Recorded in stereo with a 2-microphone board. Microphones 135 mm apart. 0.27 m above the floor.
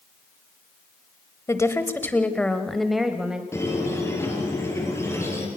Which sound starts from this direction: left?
A woman speaking, at 1.5 s.